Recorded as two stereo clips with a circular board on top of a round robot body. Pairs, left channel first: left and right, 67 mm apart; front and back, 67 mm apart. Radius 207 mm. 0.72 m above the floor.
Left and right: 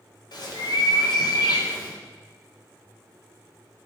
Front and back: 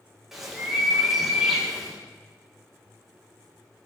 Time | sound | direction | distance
0.3 | a bird | 95° left | 2 m